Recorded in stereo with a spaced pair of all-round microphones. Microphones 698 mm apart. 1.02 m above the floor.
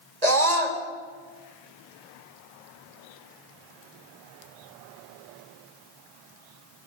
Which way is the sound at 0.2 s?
65° right (ahead or behind).